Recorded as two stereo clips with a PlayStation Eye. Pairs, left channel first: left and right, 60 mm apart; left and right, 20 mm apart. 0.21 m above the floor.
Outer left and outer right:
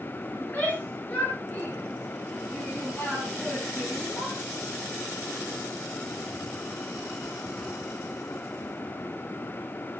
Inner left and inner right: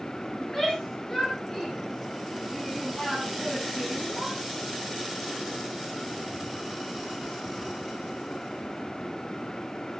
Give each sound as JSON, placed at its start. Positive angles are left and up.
{"t": 0.4, "sound": "a shout", "side_deg": 30, "distance_m": 3.0}